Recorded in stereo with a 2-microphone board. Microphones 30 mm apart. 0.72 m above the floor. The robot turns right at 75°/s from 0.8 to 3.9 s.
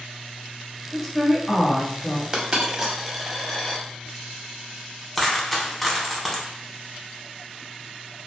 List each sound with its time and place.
0.9 s a woman speaking: 5° left (ahead or behind), 0.8 m; by 2.2 s 20° left (ahead or behind), 0.8 m
2.3 s a dropped coin: 30° right (ahead or behind), 0.6 m; by 3.8 s 20° left (ahead or behind), 0.6 m
5.2 s a dropped coin: 5° left (ahead or behind), 0.7 m